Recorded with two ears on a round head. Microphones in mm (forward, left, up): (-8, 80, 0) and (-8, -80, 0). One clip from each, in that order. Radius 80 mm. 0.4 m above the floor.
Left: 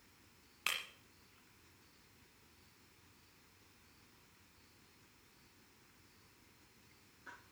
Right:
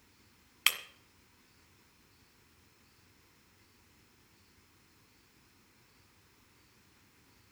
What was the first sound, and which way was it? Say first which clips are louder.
Breaking glass: right 9 dB; 60° right (ahead or behind).